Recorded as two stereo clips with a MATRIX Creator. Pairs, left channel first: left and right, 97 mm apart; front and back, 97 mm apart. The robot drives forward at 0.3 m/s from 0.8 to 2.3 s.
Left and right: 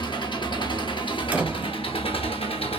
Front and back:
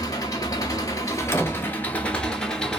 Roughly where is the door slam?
Ahead right.